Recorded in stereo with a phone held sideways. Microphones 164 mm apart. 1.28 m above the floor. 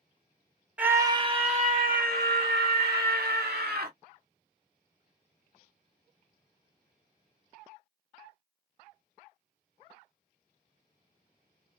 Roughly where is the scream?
Centre.